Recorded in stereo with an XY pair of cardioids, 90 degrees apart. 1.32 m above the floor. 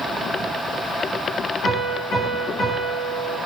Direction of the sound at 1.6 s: 70° left.